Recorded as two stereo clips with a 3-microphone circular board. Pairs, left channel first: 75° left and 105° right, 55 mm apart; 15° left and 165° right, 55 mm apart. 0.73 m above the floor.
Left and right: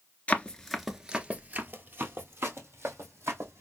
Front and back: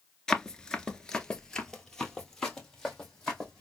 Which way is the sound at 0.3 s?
70° left.